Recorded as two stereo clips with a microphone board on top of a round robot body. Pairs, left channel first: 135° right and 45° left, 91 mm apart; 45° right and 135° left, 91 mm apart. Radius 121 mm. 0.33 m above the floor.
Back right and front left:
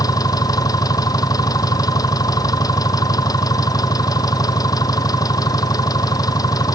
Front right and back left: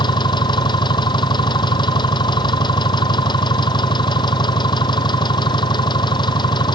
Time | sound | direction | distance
0.0 | an engine running | 85° right | ?